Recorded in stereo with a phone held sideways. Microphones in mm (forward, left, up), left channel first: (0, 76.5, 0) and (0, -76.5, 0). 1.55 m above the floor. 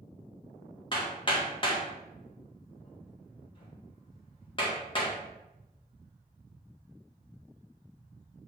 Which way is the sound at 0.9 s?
35° left (ahead or behind).